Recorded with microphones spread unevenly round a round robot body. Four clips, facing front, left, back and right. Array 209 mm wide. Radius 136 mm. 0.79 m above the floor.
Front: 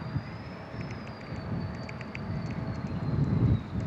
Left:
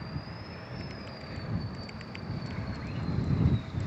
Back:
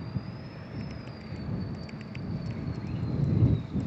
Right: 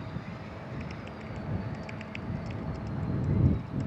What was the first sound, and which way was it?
Typing on a keyboard, 145° right.